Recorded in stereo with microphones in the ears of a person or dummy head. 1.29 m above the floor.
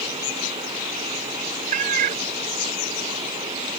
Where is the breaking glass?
I don't hear breaking glass.